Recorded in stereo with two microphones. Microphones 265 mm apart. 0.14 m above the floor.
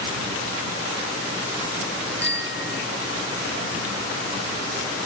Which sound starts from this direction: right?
A bicycle bell, at 2.2 s.